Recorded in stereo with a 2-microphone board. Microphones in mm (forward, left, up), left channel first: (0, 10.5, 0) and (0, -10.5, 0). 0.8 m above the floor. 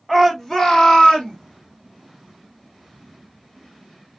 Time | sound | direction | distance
0.1 | a shout | 15° left (ahead or behind) | 1.1 m